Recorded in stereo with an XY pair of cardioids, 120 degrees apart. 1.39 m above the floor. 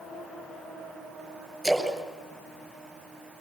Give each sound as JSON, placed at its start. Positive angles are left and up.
{"t": 1.6, "sound": "a splash", "azimuth_deg": -10, "distance_m": 8.5}